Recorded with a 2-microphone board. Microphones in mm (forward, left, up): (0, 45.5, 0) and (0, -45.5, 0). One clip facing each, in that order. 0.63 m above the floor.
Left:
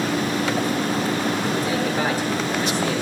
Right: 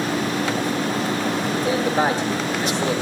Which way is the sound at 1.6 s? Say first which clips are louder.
Right 3 dB; 50° right (ahead or behind).